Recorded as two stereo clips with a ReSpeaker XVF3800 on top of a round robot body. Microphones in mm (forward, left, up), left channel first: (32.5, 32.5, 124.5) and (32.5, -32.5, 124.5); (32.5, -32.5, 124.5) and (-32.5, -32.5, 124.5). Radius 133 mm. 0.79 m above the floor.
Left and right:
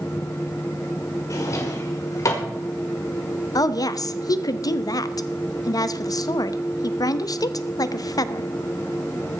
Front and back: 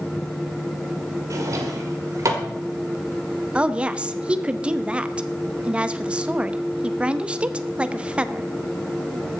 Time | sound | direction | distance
1.3 | a drawer | 135° left | 1.6 m
3.5 | a woman speaking | 105° left | 0.8 m